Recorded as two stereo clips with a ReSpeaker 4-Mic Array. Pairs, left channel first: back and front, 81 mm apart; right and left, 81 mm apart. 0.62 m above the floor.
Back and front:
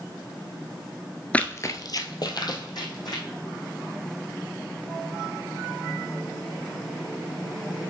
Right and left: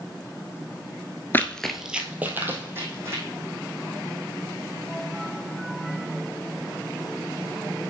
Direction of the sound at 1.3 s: 120° right.